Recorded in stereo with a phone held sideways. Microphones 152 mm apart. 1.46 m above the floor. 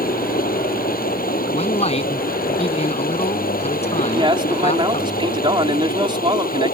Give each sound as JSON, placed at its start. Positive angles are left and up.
{"t": 0.0, "sound": "running water", "side_deg": 80}
{"t": 1.5, "sound": "a man speaking", "side_deg": 45}
{"t": 4.1, "sound": "a man speaking", "side_deg": -35}